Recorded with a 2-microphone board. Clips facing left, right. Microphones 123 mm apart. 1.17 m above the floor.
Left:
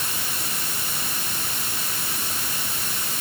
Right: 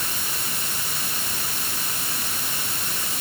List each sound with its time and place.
Only background noise.